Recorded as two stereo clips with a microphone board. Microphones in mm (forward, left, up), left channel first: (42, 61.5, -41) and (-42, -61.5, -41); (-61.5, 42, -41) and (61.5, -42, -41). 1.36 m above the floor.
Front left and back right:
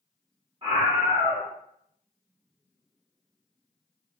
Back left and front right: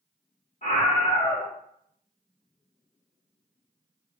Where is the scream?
175° right, 0.9 m.